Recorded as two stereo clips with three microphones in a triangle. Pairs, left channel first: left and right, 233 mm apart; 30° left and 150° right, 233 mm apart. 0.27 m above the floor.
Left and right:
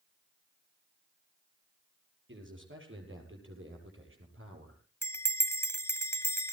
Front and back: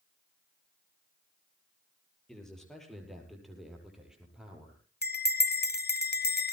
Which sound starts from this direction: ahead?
A bell, at 5.0 s.